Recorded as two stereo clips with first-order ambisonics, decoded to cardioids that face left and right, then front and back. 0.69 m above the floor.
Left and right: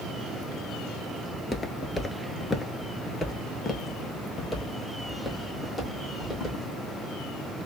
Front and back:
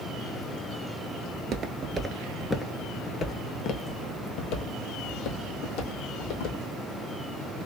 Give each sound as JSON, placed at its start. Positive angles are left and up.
{"t": 1.3, "sound": "footsteps", "azimuth_deg": 165, "distance_m": 0.8}